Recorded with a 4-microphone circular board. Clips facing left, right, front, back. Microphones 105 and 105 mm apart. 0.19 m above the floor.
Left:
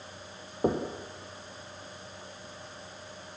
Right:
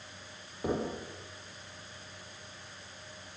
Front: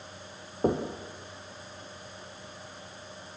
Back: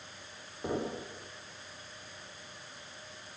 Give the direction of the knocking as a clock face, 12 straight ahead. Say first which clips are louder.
Left 4 dB, front 7 dB; 11 o'clock.